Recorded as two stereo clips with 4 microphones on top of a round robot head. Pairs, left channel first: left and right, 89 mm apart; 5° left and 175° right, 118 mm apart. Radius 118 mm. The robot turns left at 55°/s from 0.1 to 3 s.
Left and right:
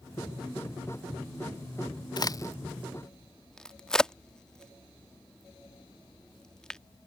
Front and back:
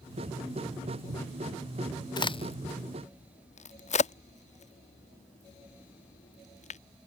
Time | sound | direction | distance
2.2 | a crack | 55° left | ?